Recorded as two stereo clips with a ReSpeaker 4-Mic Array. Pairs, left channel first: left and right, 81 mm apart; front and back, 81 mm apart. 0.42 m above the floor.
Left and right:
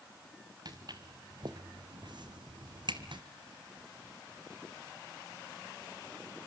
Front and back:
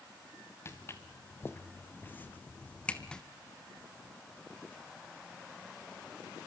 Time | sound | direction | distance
0.7 | footsteps | 55° right | 2.5 m